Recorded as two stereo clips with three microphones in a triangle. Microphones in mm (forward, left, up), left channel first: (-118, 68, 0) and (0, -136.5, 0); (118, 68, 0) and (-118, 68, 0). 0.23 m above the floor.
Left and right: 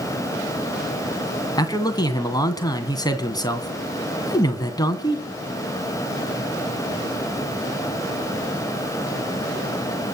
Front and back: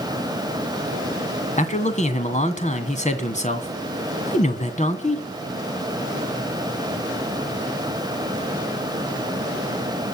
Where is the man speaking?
50° left, 2 m.